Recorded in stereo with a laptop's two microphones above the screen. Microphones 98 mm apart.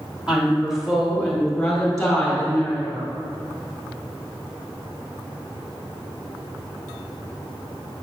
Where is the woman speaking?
10° right (ahead or behind), 2.5 m; by 3.1 s 15° left (ahead or behind), 5 m.